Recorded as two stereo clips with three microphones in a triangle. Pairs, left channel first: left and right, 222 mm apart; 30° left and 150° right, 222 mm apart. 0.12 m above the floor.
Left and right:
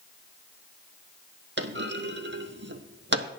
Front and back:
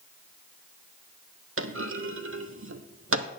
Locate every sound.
1.6 s a clunk: 130° right, 0.8 m